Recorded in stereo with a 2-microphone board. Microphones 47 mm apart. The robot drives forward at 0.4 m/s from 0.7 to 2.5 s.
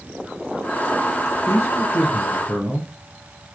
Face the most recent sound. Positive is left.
turn(degrees=70)  # may be behind; listen again after turning